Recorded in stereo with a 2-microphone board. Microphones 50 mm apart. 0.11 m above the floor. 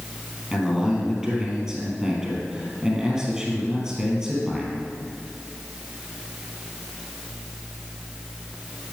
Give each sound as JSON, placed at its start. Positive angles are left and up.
{"t": 0.5, "sound": "a man speaking", "side_deg": -10, "distance_m": 3.0}